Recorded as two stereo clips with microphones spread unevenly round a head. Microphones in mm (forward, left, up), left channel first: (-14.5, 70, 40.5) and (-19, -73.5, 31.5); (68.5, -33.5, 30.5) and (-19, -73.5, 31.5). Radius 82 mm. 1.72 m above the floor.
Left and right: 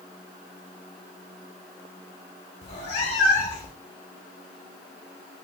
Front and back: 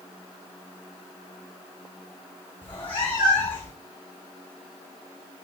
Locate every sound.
2.6 s a cat meowing: 50° left, 1.3 m